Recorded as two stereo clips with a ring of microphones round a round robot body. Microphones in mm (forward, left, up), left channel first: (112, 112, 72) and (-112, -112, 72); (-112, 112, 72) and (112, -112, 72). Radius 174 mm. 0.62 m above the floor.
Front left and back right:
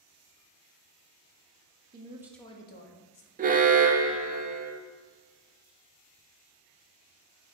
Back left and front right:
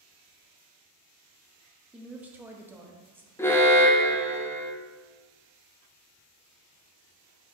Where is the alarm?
155° right, 0.6 m.